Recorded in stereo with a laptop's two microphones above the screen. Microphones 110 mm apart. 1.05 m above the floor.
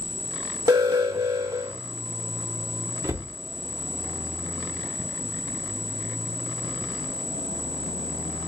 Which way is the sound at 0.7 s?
45° right (ahead or behind).